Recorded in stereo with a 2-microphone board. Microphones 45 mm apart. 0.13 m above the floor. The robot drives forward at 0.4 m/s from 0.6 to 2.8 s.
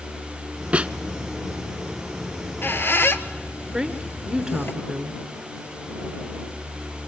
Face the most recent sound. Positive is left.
turn(degrees=-15)  # may be behind; listen again after turning